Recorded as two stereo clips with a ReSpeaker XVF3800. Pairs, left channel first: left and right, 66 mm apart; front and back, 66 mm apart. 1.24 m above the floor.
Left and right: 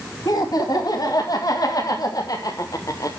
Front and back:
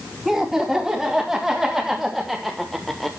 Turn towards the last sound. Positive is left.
turn(degrees=85)